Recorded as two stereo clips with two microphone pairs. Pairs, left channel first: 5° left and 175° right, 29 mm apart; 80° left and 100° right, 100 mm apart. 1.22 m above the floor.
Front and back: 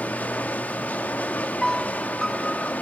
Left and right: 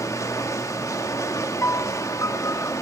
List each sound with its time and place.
0.0 s running water: 20° left, 1.5 m
1.6 s a piano: 70° left, 0.6 m